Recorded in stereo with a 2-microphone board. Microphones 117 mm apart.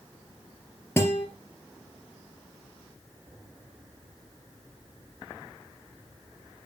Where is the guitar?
20° left (ahead or behind), 2.5 m.